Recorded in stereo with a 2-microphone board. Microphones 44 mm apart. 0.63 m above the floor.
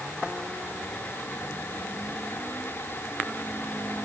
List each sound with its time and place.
Only background noise.